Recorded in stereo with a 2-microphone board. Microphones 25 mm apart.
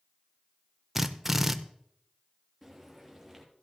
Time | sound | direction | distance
0.9 | a drill | 10° right (ahead or behind) | 0.6 m
2.6 | frying | 5° left (ahead or behind) | 3 m